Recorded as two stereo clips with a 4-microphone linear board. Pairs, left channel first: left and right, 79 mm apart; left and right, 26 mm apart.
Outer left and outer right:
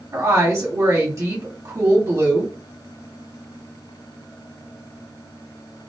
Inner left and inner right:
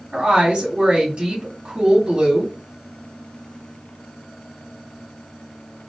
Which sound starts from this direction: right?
A woman speaking, at 0.1 s.